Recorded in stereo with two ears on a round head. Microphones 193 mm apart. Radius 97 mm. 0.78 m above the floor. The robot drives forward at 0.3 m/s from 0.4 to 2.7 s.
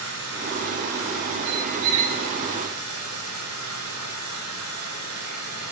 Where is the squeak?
80° right, 2.5 m; by 2.2 s 85° right, 2.5 m.